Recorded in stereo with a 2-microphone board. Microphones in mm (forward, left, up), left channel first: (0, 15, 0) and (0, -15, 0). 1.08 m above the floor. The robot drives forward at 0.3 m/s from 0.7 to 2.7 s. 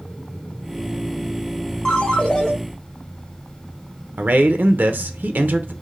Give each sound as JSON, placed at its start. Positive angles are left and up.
{"t": 1.9, "sound": "a ringtone", "side_deg": 30, "distance_m": 0.9}
{"t": 4.2, "sound": "a man speaking", "side_deg": -75, "distance_m": 0.5}